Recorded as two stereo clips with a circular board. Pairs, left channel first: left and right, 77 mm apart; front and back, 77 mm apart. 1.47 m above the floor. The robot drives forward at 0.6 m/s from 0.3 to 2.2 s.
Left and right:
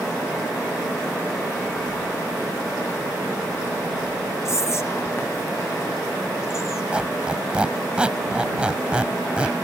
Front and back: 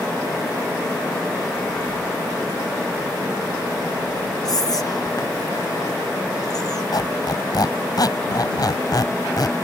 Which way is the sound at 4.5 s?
40° left.